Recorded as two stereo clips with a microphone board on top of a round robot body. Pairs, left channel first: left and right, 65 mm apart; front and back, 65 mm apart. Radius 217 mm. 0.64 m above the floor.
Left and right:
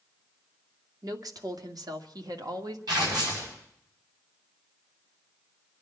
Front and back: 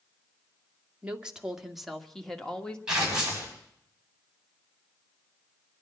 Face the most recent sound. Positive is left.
turn(degrees=-100)